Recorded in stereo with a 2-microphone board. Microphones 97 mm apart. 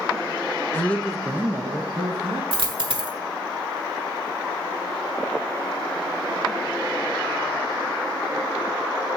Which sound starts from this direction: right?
A dropped coin, at 2.5 s.